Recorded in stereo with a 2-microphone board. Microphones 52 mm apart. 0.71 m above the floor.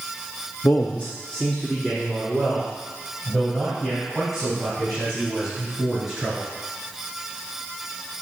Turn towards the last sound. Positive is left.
turn(degrees=0)  # may be behind; listen again after turning